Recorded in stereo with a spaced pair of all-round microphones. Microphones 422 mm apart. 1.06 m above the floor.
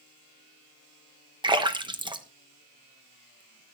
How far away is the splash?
About 0.9 m.